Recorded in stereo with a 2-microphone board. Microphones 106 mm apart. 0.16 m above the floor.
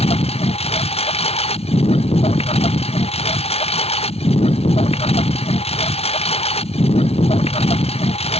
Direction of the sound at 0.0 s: 75° left (ahead or behind).